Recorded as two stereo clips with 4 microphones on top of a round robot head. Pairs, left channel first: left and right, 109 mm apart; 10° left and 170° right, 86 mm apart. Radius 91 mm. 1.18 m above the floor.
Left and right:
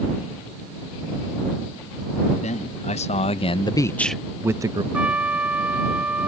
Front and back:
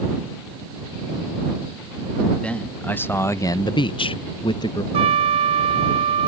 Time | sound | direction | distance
2.4 | a man speaking | 85° left | ?
4.9 | a trumpet | 170° right | ?